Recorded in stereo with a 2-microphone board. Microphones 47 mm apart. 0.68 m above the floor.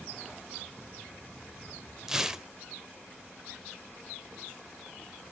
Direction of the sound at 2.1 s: 10° right (ahead or behind).